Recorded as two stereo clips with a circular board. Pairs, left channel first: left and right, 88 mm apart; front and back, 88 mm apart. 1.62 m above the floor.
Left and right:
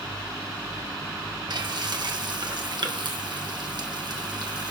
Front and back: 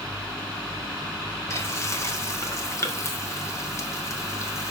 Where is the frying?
55° right, 1.5 m.